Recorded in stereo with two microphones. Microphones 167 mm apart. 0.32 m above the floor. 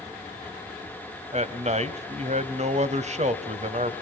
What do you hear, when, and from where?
1.3 s a man speaking: 40° right (ahead or behind), 1.3 m